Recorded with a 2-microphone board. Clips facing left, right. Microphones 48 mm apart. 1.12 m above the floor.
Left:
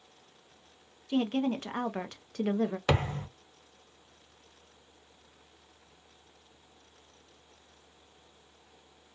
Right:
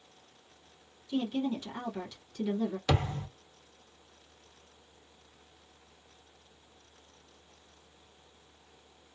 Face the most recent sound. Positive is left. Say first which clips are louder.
# left 2 dB
turn(degrees=35)  # may be behind; listen again after turning